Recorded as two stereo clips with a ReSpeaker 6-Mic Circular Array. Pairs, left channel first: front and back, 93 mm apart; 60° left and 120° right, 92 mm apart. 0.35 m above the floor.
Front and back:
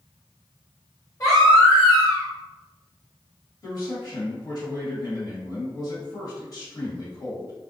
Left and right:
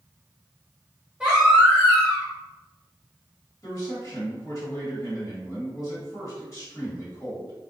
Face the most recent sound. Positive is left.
turn(degrees=20)